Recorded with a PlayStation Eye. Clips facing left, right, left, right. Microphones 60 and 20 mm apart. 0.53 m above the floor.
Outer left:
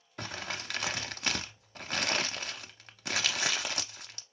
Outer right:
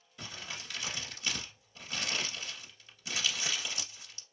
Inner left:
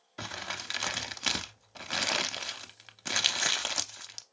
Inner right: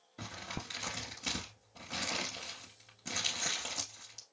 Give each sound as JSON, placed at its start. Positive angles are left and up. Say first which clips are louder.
{"t": 0.2, "sound": "crumpling", "louder": "outer left 6 dB, inner left 6 dB", "side_deg": 60, "distance_m": 0.5}